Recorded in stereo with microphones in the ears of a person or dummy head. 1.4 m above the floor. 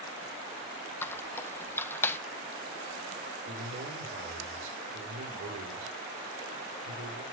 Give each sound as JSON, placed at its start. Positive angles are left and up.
{"t": 1.0, "sound": "a squeak", "side_deg": 10, "distance_m": 0.8}
{"t": 3.5, "sound": "a man speaking", "side_deg": -80, "distance_m": 5.0}